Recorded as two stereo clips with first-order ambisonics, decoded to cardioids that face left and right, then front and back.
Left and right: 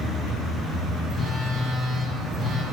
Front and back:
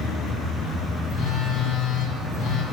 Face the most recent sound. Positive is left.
turn(degrees=-5)